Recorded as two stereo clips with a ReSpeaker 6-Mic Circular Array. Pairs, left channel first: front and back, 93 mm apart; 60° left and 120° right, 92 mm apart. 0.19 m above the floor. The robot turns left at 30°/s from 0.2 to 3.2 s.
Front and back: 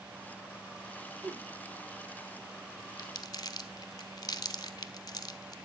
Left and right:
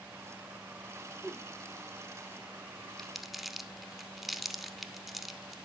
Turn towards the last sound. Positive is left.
turn(degrees=-30)